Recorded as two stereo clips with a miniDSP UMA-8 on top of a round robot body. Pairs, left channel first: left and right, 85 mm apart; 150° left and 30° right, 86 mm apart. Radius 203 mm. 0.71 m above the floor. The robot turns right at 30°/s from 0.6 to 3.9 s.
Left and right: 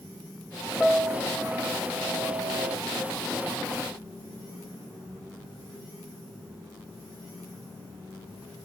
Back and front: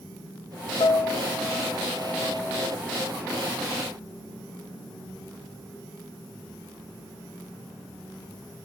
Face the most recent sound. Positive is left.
turn(degrees=-100)